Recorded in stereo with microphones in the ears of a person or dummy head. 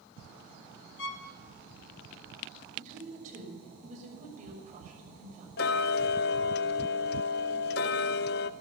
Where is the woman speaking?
50° right (ahead or behind), 6 m.